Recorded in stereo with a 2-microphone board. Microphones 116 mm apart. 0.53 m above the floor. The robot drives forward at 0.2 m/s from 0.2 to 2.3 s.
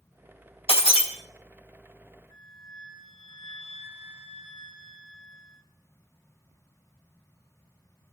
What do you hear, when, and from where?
0.7 s breaking glass: 60° left (ahead or behind), 2 m; by 1.1 s 55° left (ahead or behind), 2 m
2.3 s a flute: 60° left (ahead or behind), 2 m